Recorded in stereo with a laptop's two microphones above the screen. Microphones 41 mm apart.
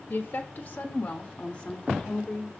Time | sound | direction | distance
0.1 | a woman speaking | 55° left (ahead or behind) | 1.0 m